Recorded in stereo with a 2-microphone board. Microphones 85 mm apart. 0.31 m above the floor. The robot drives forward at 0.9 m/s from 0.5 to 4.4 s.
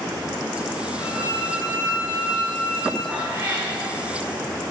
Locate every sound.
1.0 s a violin: 45° left (ahead or behind), 5 m; by 3.0 s 35° left (ahead or behind), 6.5 m
3.1 s a cat meowing: 20° right (ahead or behind), 4.5 m